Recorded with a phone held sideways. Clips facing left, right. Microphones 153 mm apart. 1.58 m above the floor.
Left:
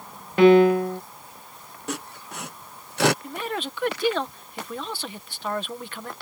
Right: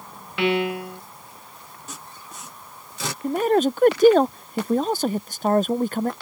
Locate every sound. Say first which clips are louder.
0.4 s a piano: left 9 dB; 40° left (ahead or behind)
1.9 s sawing: left 10 dB; 70° left (ahead or behind)
3.2 s a man speaking: right 12 dB; 40° right (ahead or behind)